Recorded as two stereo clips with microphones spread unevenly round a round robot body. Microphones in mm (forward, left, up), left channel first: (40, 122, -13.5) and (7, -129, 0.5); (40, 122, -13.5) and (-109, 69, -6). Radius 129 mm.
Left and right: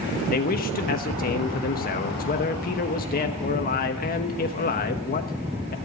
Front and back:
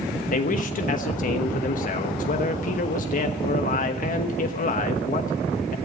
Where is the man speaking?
35° left, 1.1 m.